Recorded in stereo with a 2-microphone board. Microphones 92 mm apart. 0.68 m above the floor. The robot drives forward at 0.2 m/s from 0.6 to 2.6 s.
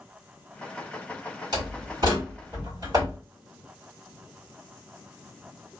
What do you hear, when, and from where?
1.5 s a door slam: 45° right (ahead or behind), 2 m